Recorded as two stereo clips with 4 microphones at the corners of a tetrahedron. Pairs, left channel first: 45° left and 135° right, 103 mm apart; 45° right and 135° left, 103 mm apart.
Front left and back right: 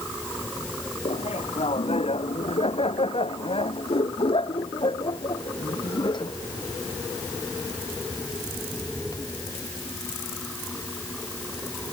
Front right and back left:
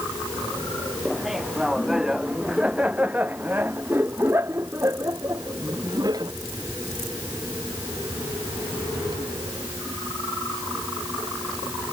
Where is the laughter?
45° left; by 6.3 s 85° left.